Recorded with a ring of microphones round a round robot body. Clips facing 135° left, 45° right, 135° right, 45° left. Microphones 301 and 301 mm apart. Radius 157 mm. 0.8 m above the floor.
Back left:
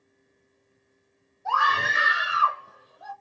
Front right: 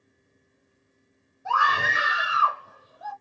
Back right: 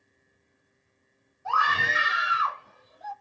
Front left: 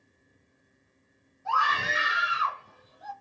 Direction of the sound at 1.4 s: 130° right.